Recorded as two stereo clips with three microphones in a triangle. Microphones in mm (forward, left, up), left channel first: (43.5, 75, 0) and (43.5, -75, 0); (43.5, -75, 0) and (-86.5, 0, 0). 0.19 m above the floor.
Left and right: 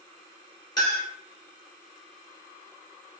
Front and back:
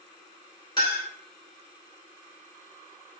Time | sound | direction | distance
0.8 | a clink | 30° left | 1.7 m